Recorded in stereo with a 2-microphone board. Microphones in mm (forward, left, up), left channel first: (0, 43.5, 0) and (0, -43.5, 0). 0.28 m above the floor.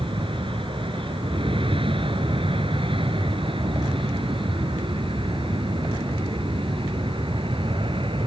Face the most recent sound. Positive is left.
turn(degrees=-70)  # may be behind; listen again after turning